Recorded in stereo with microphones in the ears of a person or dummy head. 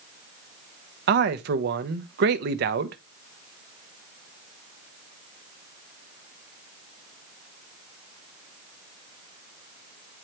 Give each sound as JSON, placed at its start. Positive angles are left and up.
{"t": 1.1, "sound": "a man speaking", "side_deg": -55, "distance_m": 0.8}